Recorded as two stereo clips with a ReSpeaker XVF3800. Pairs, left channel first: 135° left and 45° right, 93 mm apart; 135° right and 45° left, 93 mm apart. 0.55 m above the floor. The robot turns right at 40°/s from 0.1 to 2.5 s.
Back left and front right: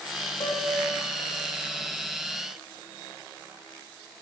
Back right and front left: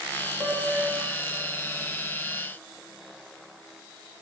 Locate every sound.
0.4 s a piano: 120° left, 2.5 m; by 1.0 s 145° left, 2.5 m